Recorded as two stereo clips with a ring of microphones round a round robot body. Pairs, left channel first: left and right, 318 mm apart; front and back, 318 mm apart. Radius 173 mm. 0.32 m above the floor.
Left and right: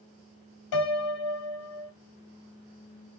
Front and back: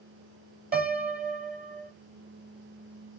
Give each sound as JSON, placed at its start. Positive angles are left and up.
{"t": 0.7, "sound": "a piano", "azimuth_deg": 120, "distance_m": 1.0}